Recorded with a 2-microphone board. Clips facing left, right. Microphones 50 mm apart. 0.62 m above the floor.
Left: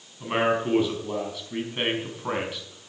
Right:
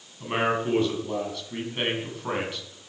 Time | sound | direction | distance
0.2 | a man speaking | 10° left (ahead or behind) | 4.5 m